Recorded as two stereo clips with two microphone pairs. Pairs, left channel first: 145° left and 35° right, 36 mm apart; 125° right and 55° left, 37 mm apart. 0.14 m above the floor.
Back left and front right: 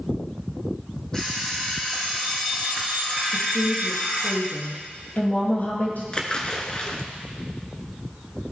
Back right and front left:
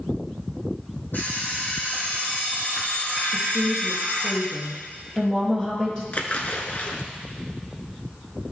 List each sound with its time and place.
1.1 s an alarm clock: 145° right, 4 m
3.3 s a woman speaking: 170° left, 3 m
6.1 s a splash: 155° right, 1.0 m